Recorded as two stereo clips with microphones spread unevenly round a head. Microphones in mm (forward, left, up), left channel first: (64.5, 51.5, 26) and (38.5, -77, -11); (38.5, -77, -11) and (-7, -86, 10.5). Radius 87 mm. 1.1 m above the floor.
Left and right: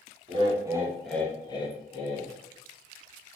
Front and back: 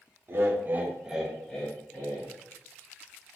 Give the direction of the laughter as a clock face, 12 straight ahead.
4 o'clock.